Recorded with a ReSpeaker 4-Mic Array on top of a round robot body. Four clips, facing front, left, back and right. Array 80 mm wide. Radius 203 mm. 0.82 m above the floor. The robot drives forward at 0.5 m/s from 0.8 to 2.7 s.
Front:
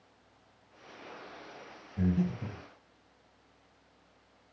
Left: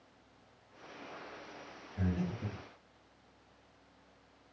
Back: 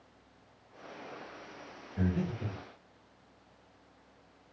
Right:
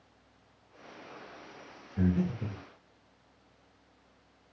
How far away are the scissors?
I don't hear scissors.